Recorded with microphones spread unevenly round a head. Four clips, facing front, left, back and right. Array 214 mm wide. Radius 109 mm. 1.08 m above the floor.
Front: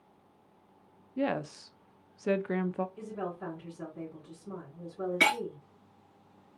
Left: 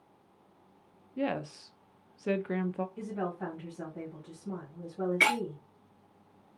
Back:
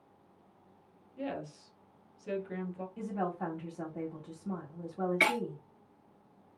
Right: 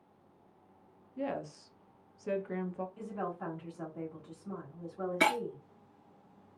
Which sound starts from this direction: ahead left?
A woman speaking, at 1.2 s.